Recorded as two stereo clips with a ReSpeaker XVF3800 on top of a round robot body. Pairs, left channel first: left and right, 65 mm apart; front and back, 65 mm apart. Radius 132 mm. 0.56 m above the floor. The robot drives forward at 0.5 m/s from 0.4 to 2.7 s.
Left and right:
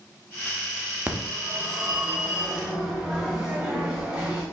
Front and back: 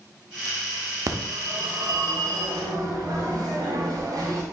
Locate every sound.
1.1 s a phone ringing: 155° right, 0.7 m; by 4.4 s 170° right, 1.4 m